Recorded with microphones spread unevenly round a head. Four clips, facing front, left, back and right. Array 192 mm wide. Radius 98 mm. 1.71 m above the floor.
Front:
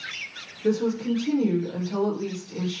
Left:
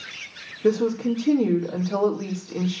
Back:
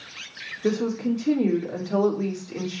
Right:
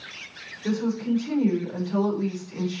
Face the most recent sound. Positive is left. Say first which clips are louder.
# left 5 dB, even
turn(degrees=115)